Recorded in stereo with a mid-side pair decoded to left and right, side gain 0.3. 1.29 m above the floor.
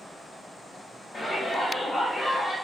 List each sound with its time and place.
1.1 s a shout: 55° left, 1.0 m; by 2.5 s 50° left, 2 m